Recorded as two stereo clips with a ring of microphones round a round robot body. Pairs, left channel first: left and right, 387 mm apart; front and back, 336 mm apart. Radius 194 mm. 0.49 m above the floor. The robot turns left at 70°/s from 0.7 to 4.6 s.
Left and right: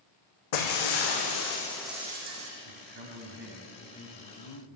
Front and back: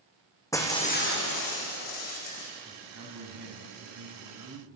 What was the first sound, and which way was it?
Breaking glass, 80° left.